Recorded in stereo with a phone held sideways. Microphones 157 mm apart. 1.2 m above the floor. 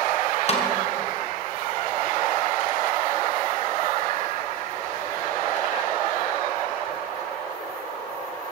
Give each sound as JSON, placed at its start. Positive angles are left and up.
{"t": 0.5, "sound": "a snare drum", "side_deg": 45, "distance_m": 2.0}